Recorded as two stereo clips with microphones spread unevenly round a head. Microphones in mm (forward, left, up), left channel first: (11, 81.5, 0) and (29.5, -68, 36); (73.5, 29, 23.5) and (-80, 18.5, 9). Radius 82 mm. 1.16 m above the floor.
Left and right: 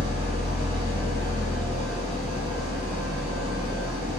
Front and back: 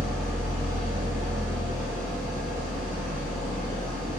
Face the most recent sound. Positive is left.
turn(degrees=-85)